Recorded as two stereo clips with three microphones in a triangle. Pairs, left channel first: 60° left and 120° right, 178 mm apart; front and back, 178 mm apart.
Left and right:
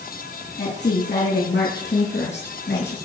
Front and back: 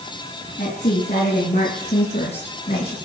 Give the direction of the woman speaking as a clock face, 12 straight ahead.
10 o'clock.